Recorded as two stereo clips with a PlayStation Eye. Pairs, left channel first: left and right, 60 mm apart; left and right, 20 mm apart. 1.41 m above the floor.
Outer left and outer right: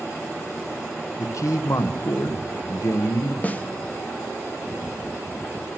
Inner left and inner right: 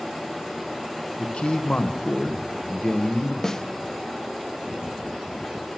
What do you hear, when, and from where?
1.2 s a man speaking: 60° left (ahead or behind), 0.9 m
3.4 s a snare drum: 25° left (ahead or behind), 0.5 m